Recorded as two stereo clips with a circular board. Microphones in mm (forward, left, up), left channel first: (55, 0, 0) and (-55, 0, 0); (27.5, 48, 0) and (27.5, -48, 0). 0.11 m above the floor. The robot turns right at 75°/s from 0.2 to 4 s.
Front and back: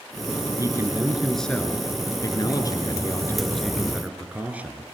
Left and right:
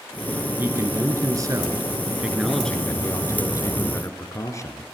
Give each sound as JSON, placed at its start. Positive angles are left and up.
{"t": 0.6, "sound": "a man speaking", "azimuth_deg": -145, "distance_m": 1.8}